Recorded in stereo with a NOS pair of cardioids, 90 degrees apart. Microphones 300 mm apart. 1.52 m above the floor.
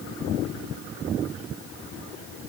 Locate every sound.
Only background noise.